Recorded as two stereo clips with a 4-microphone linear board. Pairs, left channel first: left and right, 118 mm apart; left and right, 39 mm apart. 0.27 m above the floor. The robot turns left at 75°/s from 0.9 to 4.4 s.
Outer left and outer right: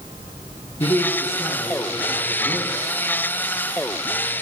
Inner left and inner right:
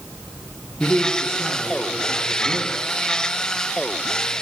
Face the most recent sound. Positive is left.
turn(degrees=150)